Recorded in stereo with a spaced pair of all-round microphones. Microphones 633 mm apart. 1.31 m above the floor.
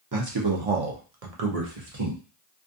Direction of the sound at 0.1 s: 30° right (ahead or behind).